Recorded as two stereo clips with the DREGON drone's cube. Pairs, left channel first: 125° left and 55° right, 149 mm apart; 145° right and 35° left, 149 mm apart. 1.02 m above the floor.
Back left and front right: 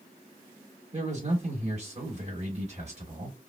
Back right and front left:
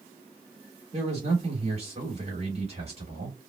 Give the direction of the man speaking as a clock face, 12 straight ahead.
12 o'clock.